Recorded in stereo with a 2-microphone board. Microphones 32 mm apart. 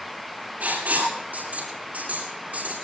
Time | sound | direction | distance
0.6 | writing | 55° right (ahead or behind) | 7.5 m